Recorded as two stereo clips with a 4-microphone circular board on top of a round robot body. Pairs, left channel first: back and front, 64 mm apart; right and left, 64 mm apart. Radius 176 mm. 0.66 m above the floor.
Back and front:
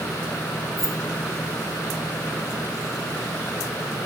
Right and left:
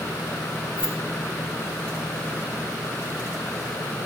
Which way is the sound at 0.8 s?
90° right.